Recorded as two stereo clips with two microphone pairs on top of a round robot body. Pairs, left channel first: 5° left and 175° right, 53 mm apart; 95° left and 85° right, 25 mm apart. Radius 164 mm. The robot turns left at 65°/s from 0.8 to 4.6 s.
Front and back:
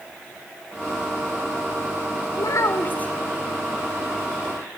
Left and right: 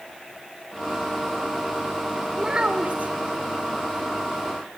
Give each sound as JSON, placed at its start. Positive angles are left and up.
{"t": 2.4, "sound": "a child speaking", "azimuth_deg": -15, "distance_m": 2.5}